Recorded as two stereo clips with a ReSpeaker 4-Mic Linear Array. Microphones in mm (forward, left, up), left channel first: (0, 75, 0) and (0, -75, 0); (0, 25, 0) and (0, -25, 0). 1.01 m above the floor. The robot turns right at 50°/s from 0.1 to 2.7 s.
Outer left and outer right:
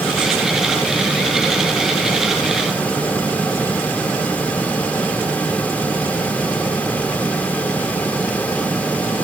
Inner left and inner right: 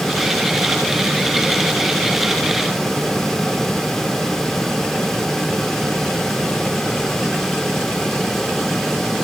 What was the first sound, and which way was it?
Only background noise.